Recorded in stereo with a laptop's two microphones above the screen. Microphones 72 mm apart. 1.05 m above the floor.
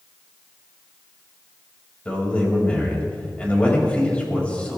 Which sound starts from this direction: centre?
A man speaking, at 2.0 s.